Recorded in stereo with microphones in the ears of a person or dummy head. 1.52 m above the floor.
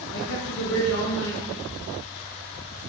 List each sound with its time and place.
0.1 s a man speaking: 75° left (ahead or behind), 0.8 m